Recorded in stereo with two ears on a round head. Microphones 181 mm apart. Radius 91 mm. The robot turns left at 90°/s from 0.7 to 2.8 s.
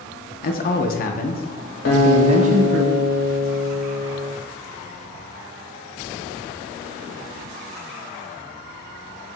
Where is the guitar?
105° left, 1.7 m; by 4.3 s 20° left, 1.7 m.